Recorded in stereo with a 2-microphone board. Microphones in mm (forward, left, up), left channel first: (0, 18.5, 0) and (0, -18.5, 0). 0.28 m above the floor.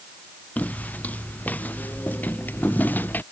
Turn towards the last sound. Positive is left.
turn(degrees=55)  # may be behind; listen again after turning